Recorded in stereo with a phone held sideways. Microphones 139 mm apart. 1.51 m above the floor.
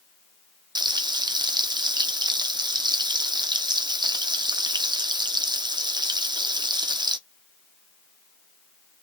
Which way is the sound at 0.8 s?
30° right (ahead or behind).